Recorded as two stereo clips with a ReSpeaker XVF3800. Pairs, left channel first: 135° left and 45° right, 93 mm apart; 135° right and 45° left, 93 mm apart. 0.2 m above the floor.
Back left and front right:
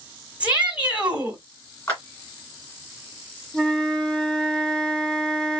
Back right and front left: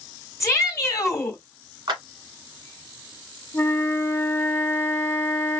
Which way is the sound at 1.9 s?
75° left.